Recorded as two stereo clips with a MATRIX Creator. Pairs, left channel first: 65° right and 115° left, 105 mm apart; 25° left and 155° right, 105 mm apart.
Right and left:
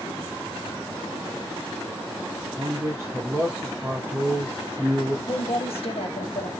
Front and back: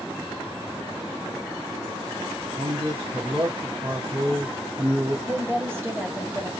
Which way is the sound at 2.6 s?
Straight behind.